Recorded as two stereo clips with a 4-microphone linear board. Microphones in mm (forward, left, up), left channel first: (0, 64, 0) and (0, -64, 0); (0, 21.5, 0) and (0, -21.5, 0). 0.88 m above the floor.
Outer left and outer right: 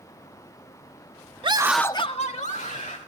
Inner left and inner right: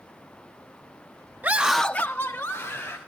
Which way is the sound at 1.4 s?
40° right (ahead or behind).